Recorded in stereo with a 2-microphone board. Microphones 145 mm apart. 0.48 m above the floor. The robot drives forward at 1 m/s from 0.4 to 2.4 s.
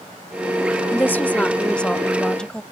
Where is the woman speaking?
15° left (ahead or behind); by 2.6 s 5° left (ahead or behind).